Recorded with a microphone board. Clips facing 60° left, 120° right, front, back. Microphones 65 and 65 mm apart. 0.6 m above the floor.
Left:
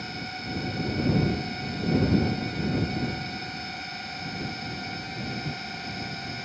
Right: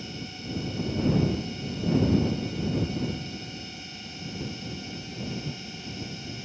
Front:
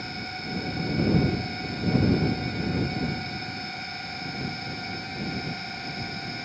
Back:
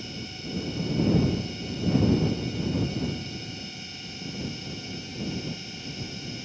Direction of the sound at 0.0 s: 30° left.